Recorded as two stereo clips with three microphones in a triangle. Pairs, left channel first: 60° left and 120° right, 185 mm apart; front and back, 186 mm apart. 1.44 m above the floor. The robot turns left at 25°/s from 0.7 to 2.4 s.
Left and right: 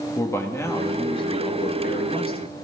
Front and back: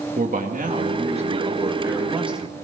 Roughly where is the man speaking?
Behind left.